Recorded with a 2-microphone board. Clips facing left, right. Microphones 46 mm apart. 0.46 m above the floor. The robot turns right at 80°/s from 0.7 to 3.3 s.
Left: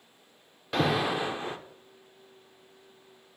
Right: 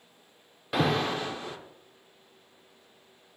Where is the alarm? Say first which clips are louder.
Even; 10° right, 0.5 m; by 1.6 s 60° left, 0.5 m.